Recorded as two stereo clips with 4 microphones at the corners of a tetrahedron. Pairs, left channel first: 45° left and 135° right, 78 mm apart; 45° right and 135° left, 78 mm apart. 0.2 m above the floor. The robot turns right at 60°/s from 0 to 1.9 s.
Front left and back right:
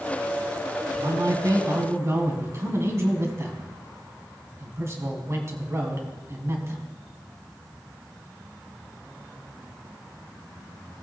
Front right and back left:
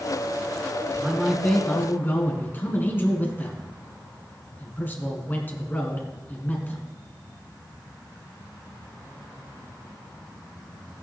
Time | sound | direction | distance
1.0 | a man speaking | 155° right | 2 m